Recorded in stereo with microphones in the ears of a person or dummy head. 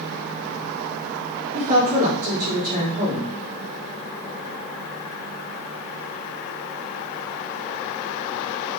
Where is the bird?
I don't hear a bird.